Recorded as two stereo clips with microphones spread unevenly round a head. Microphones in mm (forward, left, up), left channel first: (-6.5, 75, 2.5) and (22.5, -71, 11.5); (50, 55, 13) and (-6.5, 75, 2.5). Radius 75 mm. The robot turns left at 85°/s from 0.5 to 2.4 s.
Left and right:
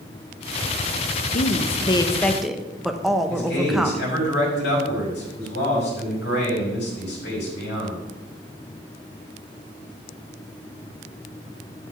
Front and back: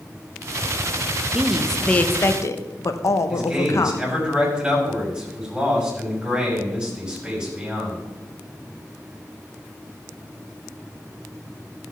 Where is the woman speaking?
105° left, 0.9 m; by 4.1 s 10° left, 0.9 m.